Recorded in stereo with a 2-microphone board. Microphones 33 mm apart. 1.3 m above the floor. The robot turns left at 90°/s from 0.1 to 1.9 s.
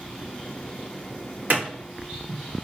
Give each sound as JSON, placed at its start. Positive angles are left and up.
{"t": 1.5, "sound": "a clap", "side_deg": -55, "distance_m": 1.1}